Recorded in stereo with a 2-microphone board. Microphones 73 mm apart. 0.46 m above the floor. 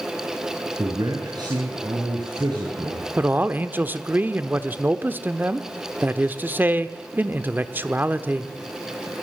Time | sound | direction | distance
0.8 | a man speaking | 65° right (ahead or behind) | 5.5 m
3.2 | a man speaking | 25° right (ahead or behind) | 1.0 m